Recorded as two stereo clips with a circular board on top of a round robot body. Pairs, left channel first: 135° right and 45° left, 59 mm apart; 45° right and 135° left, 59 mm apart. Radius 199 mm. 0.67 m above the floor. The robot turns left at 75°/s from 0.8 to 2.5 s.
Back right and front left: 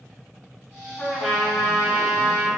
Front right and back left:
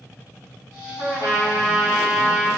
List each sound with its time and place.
1.0 s a trumpet: 145° left, 1.4 m; by 2.5 s 30° left, 1.4 m